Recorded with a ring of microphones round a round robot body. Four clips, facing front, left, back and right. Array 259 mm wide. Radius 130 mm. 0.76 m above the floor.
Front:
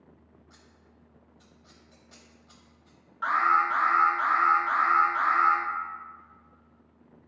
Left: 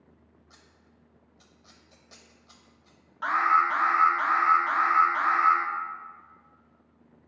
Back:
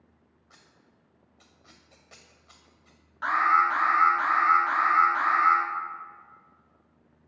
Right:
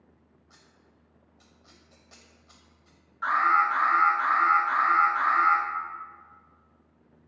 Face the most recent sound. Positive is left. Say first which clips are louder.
# even, back 1 dB
turn(degrees=125)